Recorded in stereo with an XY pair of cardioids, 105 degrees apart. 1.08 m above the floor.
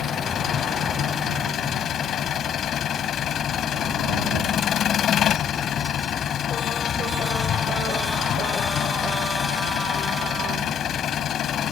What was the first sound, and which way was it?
An engine running, 65° left.